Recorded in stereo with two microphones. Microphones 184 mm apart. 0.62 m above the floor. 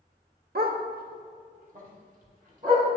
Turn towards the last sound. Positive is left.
turn(degrees=-50)  # may be behind; listen again after turning